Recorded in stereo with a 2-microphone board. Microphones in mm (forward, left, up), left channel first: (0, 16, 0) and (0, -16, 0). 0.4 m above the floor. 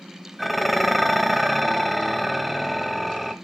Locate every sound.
0.4 s dishes clattering: centre (ahead or behind), 1.1 m